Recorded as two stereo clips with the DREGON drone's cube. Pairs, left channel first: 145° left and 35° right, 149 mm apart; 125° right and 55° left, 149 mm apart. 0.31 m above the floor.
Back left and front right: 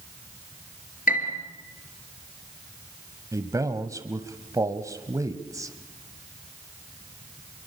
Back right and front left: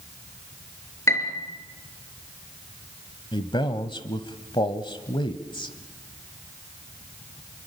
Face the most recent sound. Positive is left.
turn(degrees=-90)